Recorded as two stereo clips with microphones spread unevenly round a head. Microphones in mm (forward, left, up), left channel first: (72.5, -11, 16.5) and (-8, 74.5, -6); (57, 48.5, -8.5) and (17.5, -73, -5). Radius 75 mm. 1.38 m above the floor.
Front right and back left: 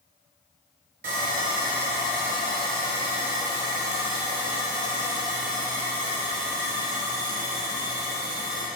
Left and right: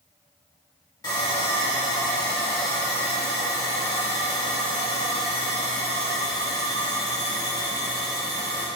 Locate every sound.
1.0 s sawing: 135° left, 2.5 m